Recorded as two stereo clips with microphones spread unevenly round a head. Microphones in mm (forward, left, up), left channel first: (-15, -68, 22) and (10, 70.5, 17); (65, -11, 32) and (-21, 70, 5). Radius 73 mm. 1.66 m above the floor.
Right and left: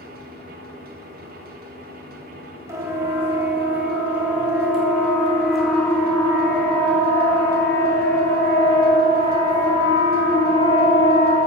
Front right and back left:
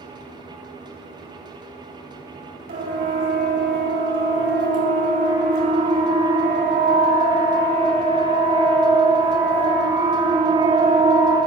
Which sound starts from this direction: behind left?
A siren, at 2.7 s.